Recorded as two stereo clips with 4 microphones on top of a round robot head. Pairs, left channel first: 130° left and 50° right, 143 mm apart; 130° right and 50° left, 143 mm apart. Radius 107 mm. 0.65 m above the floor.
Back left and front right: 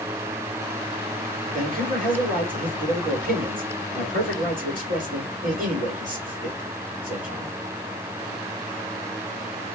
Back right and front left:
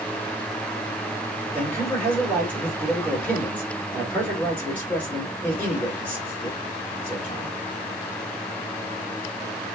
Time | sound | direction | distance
1.5 | a man speaking | 50° right | 2.5 m